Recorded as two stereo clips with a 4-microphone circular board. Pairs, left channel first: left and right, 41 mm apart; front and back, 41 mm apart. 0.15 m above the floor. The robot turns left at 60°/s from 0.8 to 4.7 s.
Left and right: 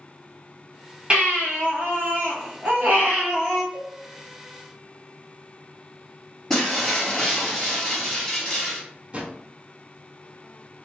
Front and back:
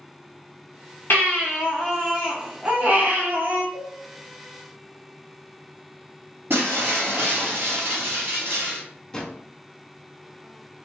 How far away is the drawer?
About 0.6 m.